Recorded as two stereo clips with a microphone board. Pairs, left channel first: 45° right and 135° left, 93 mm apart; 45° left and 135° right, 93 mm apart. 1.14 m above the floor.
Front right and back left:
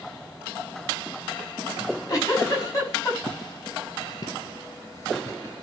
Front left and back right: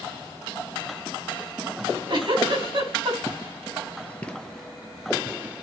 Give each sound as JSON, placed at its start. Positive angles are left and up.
{"t": 1.8, "sound": "a giggle", "azimuth_deg": -100, "distance_m": 5.5}
{"t": 3.3, "sound": "footsteps", "azimuth_deg": -15, "distance_m": 1.8}